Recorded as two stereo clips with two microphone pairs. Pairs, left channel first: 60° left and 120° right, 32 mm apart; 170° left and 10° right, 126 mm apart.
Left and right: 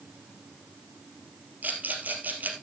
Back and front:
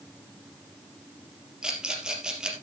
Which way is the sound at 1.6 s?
95° right.